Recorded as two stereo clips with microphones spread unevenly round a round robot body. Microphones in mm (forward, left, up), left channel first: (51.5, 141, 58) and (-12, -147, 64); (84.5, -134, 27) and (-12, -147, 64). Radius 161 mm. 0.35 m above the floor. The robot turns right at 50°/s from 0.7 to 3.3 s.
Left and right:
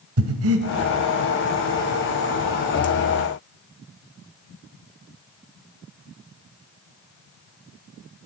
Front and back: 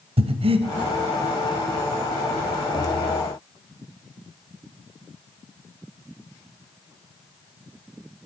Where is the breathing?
140° right, 1.1 m.